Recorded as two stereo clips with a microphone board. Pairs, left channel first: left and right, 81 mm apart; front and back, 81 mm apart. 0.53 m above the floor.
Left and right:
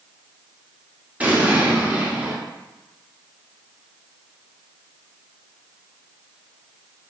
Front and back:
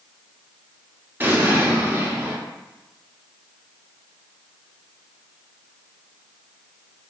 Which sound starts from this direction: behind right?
An explosion, at 1.2 s.